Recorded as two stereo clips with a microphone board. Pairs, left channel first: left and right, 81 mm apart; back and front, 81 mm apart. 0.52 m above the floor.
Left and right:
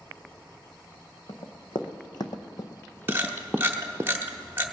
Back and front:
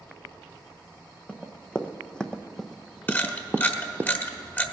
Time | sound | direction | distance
1.3 | running footsteps | 105° left | 1.6 m
3.1 | a camera shutter | 135° right | 1.2 m